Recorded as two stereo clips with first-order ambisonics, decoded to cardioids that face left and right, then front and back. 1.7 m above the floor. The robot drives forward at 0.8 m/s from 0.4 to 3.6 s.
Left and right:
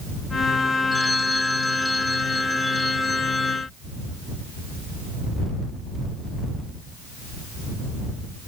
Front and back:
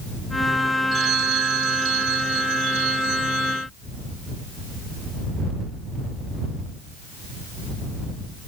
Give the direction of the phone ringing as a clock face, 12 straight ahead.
6 o'clock.